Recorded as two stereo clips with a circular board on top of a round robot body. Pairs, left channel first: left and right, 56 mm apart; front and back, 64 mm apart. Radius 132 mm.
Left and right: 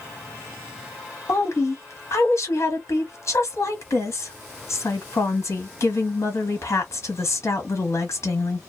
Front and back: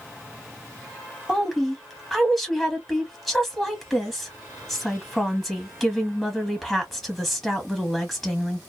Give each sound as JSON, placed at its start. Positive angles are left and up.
{"t": 1.3, "sound": "a woman speaking", "azimuth_deg": 90, "distance_m": 1.4}